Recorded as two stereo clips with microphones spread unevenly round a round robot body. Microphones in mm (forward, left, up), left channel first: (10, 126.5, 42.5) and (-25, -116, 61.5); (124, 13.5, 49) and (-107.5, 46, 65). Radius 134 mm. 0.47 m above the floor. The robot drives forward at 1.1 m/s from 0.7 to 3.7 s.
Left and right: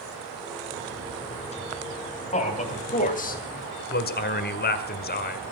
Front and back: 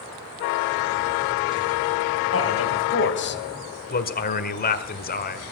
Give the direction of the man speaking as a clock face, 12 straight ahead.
11 o'clock.